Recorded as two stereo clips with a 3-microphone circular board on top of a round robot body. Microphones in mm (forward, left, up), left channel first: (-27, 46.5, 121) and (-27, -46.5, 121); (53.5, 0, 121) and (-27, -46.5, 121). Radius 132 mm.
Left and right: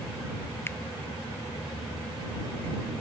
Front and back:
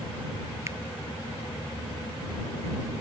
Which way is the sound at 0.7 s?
155° left.